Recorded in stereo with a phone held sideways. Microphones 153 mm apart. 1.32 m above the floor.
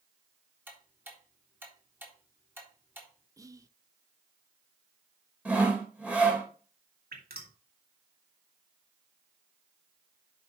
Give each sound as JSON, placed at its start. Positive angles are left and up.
{"t": 0.7, "sound": "ticking", "side_deg": -15, "distance_m": 3.5}
{"t": 3.4, "sound": "whispering", "side_deg": -20, "distance_m": 0.8}
{"t": 5.5, "sound": "sawing", "side_deg": -10, "distance_m": 2.5}
{"t": 7.1, "sound": "dripping", "side_deg": -85, "distance_m": 2.5}